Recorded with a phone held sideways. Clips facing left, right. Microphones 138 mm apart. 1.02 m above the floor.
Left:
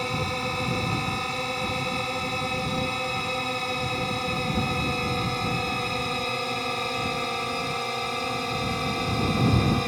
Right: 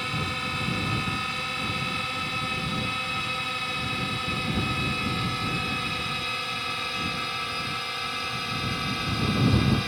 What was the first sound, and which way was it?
A drone, 35° left (ahead or behind).